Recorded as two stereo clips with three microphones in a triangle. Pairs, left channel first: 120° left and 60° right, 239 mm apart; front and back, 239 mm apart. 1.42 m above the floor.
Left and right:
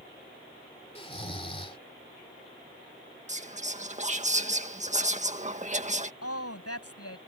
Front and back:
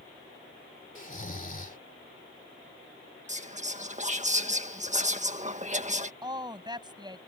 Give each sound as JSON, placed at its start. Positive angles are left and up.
{"t": 0.9, "sound": "snoring", "azimuth_deg": 55}
{"t": 3.3, "sound": "whispering", "azimuth_deg": -120}
{"t": 6.2, "sound": "a woman speaking", "azimuth_deg": 105}